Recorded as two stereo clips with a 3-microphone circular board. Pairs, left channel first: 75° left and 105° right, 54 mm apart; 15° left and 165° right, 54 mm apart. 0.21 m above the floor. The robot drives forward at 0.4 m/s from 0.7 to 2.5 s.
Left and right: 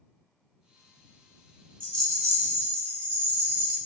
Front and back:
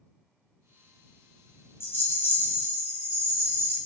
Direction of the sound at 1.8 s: 5° left.